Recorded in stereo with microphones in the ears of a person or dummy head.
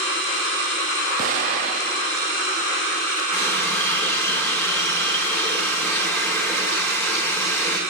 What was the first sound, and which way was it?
An explosion, 45° right (ahead or behind).